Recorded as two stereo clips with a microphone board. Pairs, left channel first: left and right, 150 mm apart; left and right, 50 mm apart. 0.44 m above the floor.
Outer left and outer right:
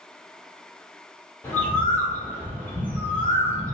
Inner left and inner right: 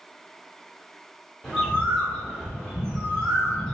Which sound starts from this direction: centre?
A bird, at 1.4 s.